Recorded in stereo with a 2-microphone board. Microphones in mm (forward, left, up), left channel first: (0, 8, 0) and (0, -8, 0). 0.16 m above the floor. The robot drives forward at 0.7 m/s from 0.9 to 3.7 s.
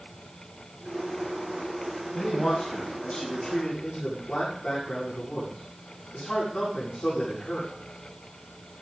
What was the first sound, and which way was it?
A man speaking, 70° left (ahead or behind).